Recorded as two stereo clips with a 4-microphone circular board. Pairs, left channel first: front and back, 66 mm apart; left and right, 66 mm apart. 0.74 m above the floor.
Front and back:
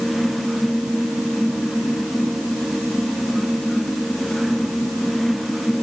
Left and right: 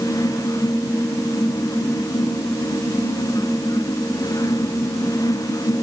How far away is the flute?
I don't hear a flute.